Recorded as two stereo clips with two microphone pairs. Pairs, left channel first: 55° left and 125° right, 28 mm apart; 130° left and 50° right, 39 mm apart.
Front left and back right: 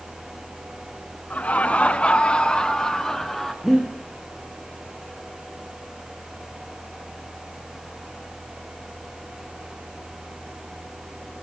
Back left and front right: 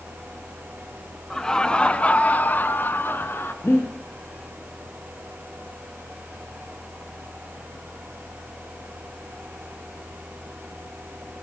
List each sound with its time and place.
1.3 s laughter: 55° left, 2.5 m; by 3.5 s 135° left, 2.5 m
3.6 s breathing: 145° left, 9 m